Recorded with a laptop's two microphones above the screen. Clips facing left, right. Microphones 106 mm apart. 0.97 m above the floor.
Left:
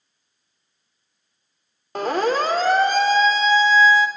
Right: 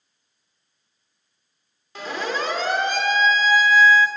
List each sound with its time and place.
1.9 s a siren: 55° left (ahead or behind), 2 m; by 4.1 s 25° left (ahead or behind), 2 m